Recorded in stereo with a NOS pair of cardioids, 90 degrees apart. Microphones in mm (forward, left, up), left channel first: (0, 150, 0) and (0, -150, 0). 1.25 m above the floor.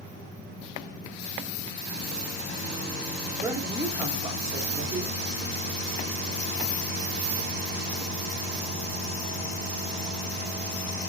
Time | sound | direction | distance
3.4 | a woman speaking | 10° right | 1.2 m